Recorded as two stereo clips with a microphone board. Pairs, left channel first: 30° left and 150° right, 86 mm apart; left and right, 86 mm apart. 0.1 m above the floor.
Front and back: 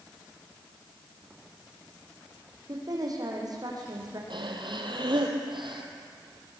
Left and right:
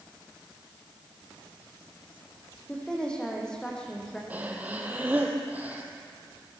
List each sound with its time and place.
2.7 s a woman speaking: 170° left, 5.5 m
4.3 s breathing: 160° right, 2.5 m